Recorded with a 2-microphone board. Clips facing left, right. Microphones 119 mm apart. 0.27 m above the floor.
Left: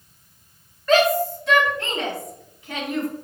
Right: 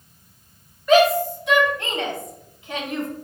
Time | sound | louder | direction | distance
0.9 | a shout | right 2 dB | 10° right (ahead or behind) | 1.6 m